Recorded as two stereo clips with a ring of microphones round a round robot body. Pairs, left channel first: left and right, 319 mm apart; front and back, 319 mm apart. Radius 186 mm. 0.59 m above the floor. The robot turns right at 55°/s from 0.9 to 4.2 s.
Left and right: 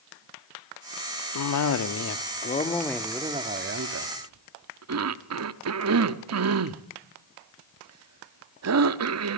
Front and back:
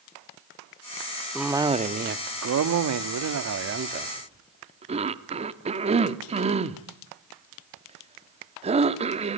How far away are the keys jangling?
No keys jangling in this recording.